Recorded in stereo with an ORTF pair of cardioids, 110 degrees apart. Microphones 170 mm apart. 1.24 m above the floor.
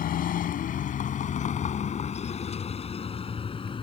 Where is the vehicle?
60° left; by 3.8 s 30° left.